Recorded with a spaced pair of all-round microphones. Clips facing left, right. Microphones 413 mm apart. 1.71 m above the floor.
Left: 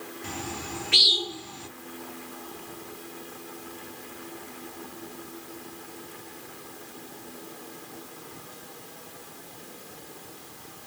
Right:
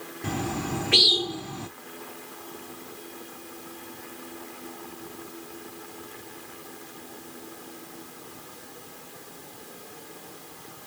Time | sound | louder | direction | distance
0.2 | a bird | right 9 dB | 70° right (ahead or behind) | 0.9 m